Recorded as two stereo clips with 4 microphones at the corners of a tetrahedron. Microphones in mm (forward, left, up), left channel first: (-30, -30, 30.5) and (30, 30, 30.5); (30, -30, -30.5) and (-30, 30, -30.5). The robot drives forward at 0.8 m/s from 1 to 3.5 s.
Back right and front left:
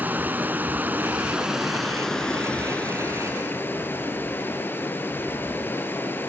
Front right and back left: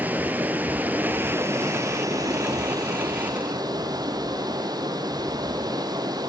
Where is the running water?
90° left, 1.4 m; by 6.3 s 160° left, 2.5 m.